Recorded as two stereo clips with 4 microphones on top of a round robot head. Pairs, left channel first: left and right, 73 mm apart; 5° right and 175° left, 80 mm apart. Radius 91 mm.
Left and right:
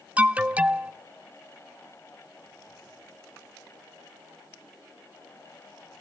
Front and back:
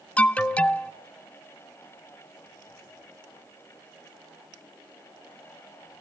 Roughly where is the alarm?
Ahead right.